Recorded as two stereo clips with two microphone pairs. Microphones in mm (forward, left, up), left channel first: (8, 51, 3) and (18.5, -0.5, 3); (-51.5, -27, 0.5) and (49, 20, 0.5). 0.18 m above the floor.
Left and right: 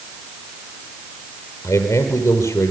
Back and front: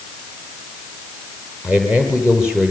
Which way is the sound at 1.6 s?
110° left.